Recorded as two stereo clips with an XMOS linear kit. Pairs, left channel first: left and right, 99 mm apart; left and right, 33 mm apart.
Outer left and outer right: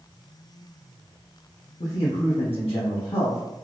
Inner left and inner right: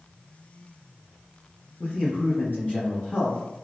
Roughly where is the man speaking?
Left.